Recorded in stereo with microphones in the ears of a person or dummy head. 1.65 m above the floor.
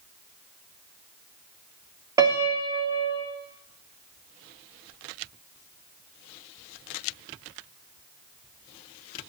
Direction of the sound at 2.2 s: 20° right (ahead or behind).